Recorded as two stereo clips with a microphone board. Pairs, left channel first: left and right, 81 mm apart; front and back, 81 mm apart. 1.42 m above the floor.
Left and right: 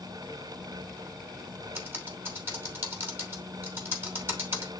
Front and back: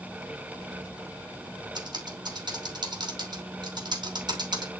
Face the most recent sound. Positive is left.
turn(degrees=-155)